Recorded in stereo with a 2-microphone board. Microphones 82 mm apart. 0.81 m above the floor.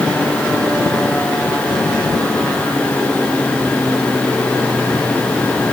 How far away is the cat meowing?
I don't hear a cat meowing.